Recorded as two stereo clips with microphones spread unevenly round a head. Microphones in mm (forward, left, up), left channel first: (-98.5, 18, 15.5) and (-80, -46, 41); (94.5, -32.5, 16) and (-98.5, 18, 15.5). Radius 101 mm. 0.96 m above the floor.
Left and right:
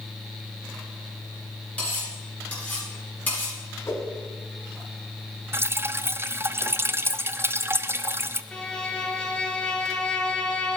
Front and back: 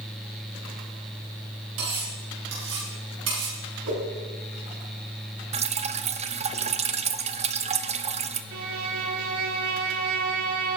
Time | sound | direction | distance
1.8 | cutlery clinking | 170° left | 9 m
3.9 | a whoosh | 155° left | 7 m
5.5 | dripping | 140° right | 0.9 m
8.5 | a violin | straight behind | 1.8 m